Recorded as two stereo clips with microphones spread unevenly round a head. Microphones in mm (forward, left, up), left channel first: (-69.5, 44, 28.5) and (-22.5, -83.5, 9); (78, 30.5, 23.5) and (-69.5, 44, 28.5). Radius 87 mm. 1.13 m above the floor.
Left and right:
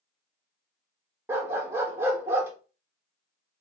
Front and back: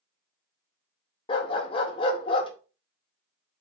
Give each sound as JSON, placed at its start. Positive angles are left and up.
{"t": 1.3, "sound": "a dog barking", "azimuth_deg": 5, "distance_m": 0.5}